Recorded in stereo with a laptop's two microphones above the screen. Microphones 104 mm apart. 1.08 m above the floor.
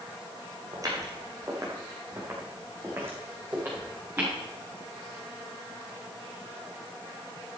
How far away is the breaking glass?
No breaking glass in this recording.